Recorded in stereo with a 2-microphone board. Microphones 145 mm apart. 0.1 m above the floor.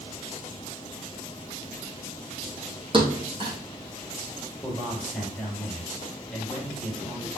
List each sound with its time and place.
2.9 s a thud: 35° right (ahead or behind), 2.5 m
4.6 s a man speaking: 5° right (ahead or behind), 3 m